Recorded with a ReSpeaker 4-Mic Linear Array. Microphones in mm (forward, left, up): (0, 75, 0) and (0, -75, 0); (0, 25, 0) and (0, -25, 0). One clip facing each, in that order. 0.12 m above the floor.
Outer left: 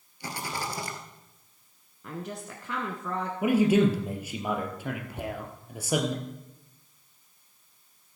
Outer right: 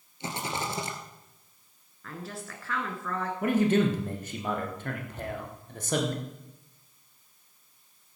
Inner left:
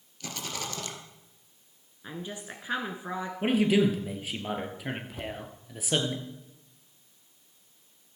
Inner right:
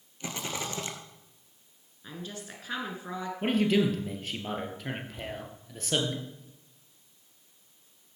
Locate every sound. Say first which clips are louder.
0.2 s a rattle: outer right 1 dB, inner right 2 dB; 25° right (ahead or behind), 1.8 m
2.0 s a woman speaking: outer left 3 dB, inner left 2 dB; 20° left (ahead or behind), 1.3 m
3.4 s a man speaking: outer left 2 dB, inner left 2 dB; 10° left (ahead or behind), 2 m
5.2 s a thud: even, inner left 1 dB; 60° left (ahead or behind), 1.9 m